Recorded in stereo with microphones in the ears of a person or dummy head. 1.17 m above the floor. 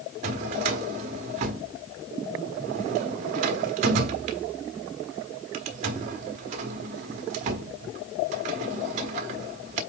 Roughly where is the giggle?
No giggle in this recording.